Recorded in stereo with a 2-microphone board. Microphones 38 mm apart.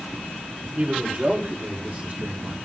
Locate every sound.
0.8 s a man speaking: 35° right (ahead or behind), 3 m; by 2.6 s 60° right (ahead or behind), 2.5 m